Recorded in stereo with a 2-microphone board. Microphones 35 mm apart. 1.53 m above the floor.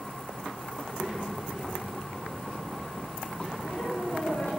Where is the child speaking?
30° left (ahead or behind), 4 m.